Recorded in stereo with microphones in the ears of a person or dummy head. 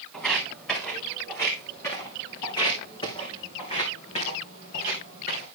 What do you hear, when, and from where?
0.1 s footsteps: 5° left (ahead or behind), 3.5 m; by 5.5 s 45° left (ahead or behind), 4 m